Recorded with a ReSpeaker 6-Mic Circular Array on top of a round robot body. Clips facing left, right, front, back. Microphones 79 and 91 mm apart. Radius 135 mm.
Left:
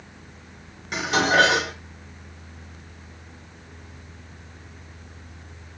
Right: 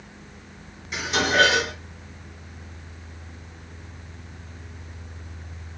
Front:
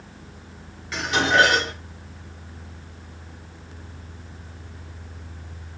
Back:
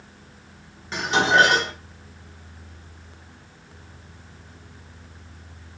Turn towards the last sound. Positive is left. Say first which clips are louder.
# left 3 dB, back 1 dB
turn(degrees=120)